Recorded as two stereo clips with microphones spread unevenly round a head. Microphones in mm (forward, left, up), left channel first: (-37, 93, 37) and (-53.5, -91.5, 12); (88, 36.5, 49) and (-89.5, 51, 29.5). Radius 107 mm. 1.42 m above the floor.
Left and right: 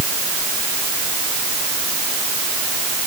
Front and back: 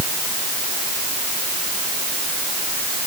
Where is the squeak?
No squeak in this recording.